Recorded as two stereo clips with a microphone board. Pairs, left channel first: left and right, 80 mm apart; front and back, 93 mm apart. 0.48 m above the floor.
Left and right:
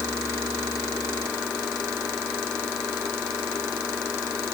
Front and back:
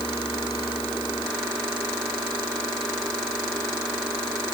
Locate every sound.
Only background noise.